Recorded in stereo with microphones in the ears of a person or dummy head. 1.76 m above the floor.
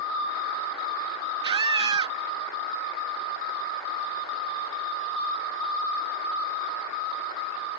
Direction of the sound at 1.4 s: 25° right (ahead or behind).